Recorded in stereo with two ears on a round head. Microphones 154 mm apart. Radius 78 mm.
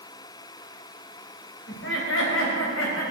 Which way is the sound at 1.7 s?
70° left (ahead or behind).